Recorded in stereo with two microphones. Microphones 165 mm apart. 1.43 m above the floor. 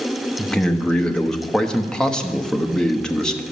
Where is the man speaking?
5° left (ahead or behind), 0.8 m.